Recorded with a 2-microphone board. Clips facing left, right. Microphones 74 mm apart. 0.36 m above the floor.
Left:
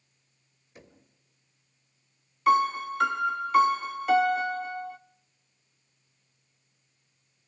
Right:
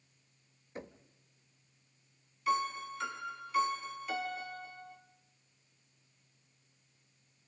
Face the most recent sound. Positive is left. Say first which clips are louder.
# left 10 dB
turn(degrees=75)  # may be behind; listen again after turning